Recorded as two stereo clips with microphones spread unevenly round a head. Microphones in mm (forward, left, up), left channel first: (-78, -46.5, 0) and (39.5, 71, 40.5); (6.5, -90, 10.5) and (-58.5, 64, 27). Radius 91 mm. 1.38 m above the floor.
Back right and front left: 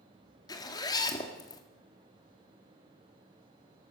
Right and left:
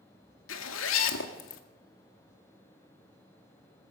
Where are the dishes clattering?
I don't hear dishes clattering.